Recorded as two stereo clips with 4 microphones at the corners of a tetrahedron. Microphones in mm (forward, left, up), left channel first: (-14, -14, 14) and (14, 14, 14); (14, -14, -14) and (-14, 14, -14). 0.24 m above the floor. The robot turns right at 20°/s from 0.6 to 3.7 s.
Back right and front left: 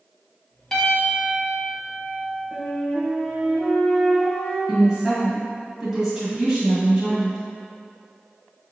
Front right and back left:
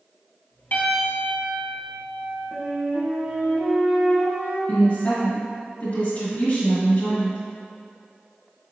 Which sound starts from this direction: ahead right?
A piano, at 0.7 s.